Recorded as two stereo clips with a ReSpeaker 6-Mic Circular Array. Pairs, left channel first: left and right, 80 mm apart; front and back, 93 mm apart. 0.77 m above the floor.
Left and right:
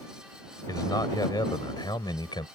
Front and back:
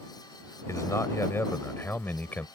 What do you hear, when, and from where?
0.7 s a man speaking: 55° left; by 2.5 s 75° left